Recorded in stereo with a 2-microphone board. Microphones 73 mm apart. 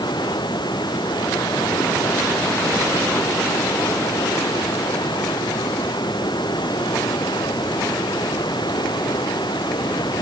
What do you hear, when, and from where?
0.0 s running water: 90° left